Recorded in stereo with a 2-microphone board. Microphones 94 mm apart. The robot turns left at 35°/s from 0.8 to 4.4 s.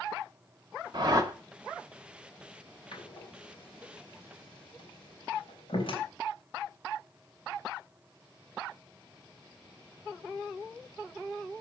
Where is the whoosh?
45° right (ahead or behind), 1.6 m; by 1.3 s 35° right (ahead or behind), 1.6 m.